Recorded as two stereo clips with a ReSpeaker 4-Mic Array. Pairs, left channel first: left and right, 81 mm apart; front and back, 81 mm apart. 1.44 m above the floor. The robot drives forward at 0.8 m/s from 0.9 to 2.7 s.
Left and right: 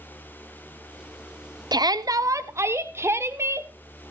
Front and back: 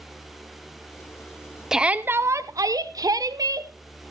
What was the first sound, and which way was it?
A shout, 95° right.